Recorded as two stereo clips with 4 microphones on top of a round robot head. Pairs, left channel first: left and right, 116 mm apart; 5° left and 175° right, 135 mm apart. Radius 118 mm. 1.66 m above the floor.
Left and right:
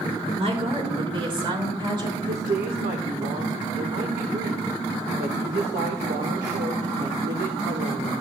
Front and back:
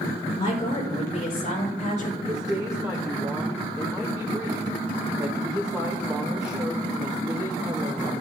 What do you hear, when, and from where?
0.4 s a woman speaking: 55° right, 4.5 m; by 2.2 s 40° right, 5.5 m
2.3 s a woman speaking: 100° right, 0.9 m